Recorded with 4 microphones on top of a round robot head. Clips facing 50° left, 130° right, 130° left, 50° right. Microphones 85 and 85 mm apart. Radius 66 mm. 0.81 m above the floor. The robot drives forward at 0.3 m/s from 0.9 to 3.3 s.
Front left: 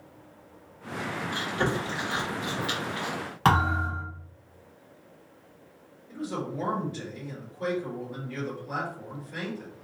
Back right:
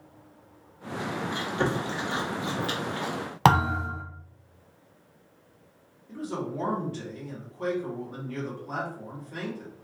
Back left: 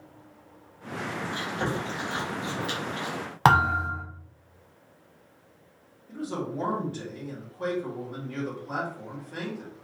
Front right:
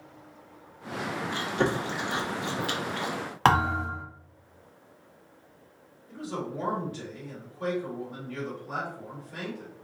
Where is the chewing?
60° right, 1.3 m; by 3.1 s 90° right, 1.2 m.